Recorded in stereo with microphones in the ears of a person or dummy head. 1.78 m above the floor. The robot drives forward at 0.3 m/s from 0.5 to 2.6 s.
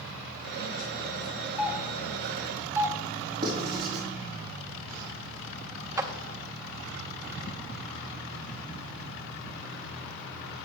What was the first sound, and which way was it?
A doorbell, 10° right (ahead or behind).